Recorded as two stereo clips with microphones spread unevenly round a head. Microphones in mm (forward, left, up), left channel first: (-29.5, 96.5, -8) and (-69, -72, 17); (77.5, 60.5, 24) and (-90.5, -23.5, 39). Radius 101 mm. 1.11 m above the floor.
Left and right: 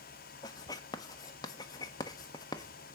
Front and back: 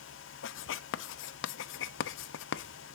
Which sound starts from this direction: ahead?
Writing, at 0.4 s.